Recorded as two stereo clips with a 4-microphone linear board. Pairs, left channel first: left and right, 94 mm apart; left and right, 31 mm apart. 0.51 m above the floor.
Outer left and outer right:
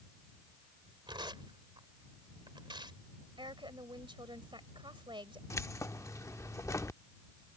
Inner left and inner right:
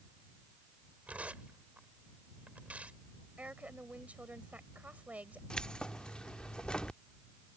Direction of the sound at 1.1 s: 55° right (ahead or behind).